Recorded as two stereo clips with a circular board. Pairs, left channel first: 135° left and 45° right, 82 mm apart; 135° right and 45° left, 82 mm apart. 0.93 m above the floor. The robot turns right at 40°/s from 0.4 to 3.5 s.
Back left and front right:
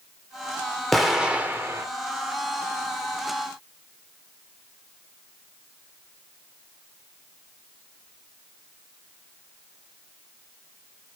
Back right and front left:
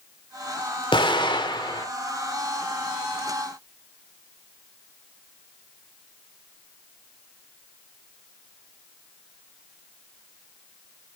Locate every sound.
0.9 s an explosion: 135° right, 2 m; by 1.9 s 100° right, 2 m